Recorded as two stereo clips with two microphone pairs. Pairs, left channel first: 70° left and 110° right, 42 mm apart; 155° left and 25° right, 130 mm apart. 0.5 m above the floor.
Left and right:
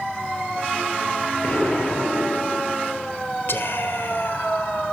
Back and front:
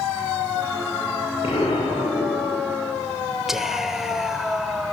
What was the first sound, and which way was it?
An explosion, 115° left.